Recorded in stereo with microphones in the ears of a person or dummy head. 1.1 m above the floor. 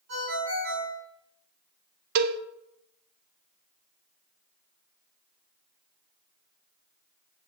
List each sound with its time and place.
0.1 s a ringtone: 75° right (ahead or behind), 3 m
2.1 s a cowbell: 55° right (ahead or behind), 0.6 m